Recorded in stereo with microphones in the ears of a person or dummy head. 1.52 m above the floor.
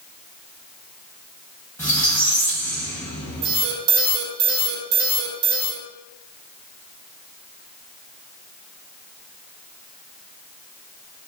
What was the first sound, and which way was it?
A squeak, 10° left (ahead or behind).